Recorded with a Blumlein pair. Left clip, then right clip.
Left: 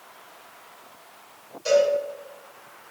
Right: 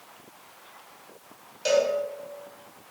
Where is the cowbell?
35° right, 1.4 m.